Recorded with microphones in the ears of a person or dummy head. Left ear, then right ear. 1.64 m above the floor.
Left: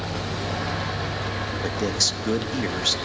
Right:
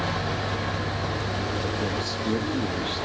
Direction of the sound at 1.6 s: 70° left (ahead or behind).